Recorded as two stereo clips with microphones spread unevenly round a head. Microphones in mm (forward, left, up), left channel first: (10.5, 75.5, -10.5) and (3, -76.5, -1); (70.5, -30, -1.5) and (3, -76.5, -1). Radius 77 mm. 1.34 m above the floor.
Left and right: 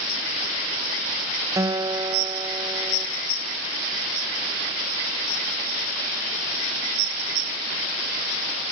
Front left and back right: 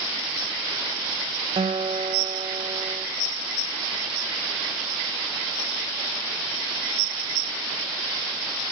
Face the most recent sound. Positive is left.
turn(degrees=-160)